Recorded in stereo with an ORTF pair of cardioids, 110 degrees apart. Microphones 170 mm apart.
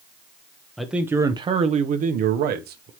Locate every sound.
0.8 s a man speaking: straight ahead, 0.9 m; by 2.9 s 75° right, 1.4 m